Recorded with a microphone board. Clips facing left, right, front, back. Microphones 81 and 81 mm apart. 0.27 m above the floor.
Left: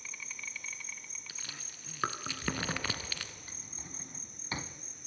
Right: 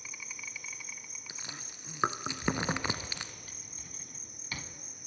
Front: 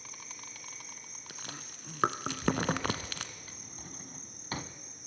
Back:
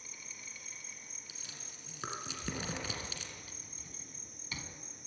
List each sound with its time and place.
0.0 s an insect: 10° right, 1.2 m
1.3 s chewing: 20° right, 0.9 m
3.5 s a drawer: 30° left, 0.8 m